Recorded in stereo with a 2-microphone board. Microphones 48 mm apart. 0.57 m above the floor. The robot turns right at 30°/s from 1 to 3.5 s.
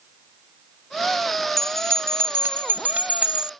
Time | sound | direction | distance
1.6 | a bell | 80° right | ?